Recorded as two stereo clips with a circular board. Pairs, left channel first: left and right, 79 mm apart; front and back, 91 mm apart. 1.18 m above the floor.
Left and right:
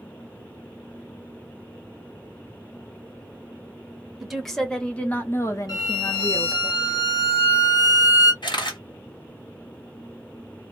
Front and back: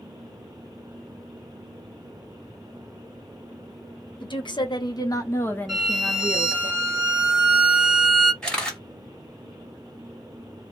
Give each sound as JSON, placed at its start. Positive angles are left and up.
{"t": 4.2, "sound": "a woman speaking", "azimuth_deg": -5, "distance_m": 1.0}
{"t": 5.7, "sound": "a violin", "azimuth_deg": 95, "distance_m": 1.5}
{"t": 8.4, "sound": "a camera shutter", "azimuth_deg": 80, "distance_m": 1.2}